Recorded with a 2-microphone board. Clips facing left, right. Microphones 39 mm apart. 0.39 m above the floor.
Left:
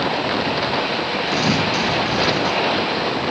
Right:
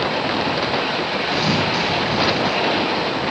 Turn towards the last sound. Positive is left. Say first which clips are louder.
# left 1 dB
turn(degrees=-15)  # may be behind; listen again after turning